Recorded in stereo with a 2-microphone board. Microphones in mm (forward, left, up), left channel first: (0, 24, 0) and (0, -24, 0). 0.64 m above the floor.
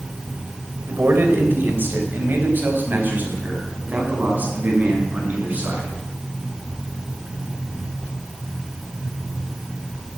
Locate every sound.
0.9 s a man speaking: 50° right (ahead or behind), 2.5 m; by 5.9 s 35° right (ahead or behind), 5.5 m